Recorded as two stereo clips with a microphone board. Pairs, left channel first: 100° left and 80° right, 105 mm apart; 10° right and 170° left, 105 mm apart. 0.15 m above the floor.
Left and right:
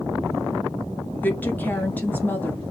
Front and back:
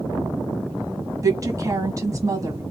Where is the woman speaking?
155° left, 1.1 m.